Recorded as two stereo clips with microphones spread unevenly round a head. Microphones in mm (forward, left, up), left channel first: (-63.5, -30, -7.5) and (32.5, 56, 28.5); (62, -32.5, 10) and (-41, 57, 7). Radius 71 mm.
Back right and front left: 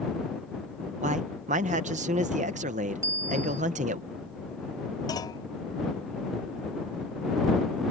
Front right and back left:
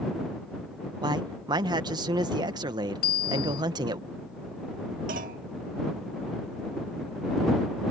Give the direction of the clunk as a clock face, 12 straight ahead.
7 o'clock.